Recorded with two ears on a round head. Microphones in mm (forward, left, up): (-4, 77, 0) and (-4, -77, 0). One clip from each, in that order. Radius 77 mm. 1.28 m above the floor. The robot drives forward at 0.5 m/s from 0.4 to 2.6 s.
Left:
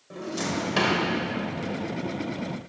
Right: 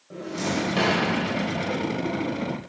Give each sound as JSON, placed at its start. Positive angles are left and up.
{"t": 0.1, "sound": "a drawer", "side_deg": 45, "distance_m": 2.5}